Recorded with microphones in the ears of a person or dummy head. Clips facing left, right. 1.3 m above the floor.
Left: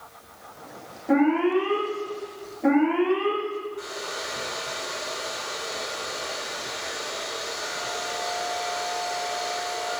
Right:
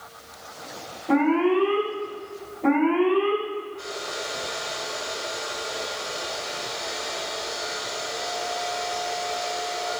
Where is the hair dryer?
45° left (ahead or behind), 7 m.